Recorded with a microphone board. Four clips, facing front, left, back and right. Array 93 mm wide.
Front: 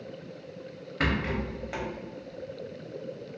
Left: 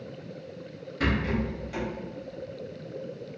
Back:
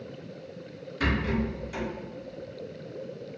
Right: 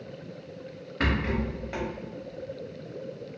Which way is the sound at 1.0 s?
35° right.